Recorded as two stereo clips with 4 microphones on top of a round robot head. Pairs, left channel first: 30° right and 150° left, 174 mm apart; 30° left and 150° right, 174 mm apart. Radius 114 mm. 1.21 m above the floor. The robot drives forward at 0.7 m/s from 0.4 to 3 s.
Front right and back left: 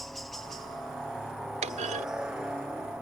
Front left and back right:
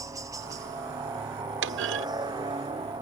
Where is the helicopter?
120° right; by 3.0 s 135° right.